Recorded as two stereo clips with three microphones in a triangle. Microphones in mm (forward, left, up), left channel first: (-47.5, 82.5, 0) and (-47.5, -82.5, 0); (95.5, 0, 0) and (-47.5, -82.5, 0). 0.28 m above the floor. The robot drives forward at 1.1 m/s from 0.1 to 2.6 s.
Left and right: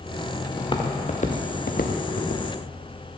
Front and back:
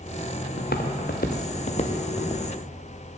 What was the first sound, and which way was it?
Footsteps, 25° left.